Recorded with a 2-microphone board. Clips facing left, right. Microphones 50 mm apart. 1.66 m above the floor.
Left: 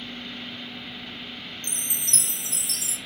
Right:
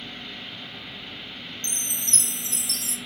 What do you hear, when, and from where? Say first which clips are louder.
1.6 s a chime: right 1 dB; centre (ahead or behind), 0.7 m